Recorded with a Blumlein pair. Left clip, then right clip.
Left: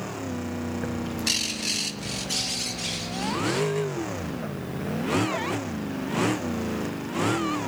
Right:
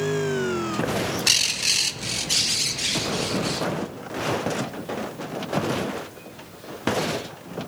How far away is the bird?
About 0.9 m.